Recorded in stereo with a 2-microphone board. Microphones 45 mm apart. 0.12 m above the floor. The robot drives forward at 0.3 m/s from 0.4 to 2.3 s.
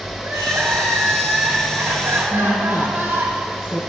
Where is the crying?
75° right (ahead or behind), 4 m.